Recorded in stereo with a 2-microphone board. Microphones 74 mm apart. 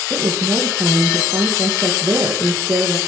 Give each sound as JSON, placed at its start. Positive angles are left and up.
{"t": 0.1, "sound": "a woman speaking", "side_deg": -45, "distance_m": 3.0}